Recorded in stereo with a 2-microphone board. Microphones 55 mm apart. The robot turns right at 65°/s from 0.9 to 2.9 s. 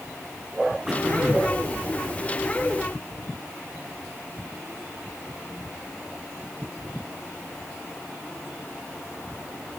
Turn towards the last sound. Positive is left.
turn(degrees=-40)